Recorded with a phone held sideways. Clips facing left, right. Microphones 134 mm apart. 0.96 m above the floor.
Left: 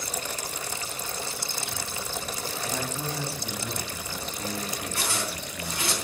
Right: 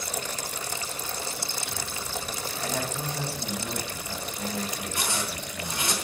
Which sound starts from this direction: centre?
A zipper, at 5.0 s.